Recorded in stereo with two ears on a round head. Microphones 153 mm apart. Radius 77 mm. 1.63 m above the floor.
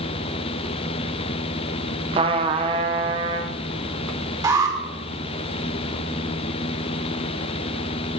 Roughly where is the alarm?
Right.